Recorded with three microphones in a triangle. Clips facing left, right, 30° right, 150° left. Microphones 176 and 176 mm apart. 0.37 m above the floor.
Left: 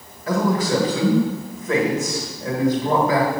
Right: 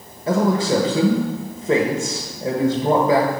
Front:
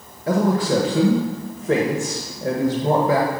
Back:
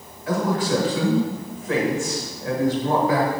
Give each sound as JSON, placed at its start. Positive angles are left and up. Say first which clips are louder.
{"t": 0.3, "sound": "a man speaking", "louder": "right 2 dB, front 3 dB", "azimuth_deg": -45, "distance_m": 1.4}